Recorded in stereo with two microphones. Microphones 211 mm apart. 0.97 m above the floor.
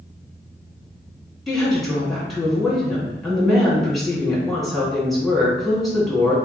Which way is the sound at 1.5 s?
Centre (ahead or behind).